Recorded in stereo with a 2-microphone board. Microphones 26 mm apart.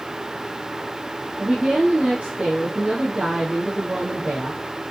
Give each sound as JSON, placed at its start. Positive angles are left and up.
{"t": 1.4, "sound": "a woman speaking", "side_deg": -60, "distance_m": 5.0}